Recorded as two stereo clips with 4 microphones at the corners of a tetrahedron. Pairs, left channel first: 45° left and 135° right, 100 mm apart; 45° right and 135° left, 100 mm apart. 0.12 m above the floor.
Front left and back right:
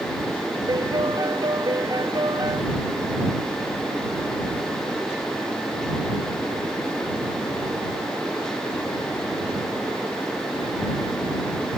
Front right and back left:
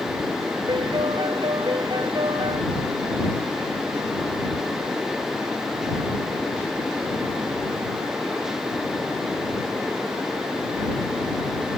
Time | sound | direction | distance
0.7 | a piano | 175° left | ?